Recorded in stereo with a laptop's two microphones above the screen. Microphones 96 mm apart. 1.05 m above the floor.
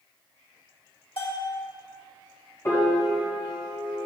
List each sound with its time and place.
1.2 s a bell: 80° left, 3 m
2.6 s a piano: 30° left (ahead or behind), 1.8 m